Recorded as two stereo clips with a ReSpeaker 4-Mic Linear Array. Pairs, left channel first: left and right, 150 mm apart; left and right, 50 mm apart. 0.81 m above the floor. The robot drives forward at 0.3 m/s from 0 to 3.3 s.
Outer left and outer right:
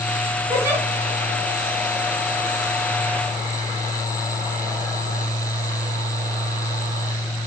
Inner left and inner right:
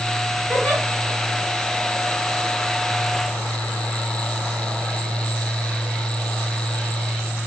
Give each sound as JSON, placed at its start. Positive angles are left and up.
{"t": 0.5, "sound": "a giggle", "side_deg": -20, "distance_m": 5.0}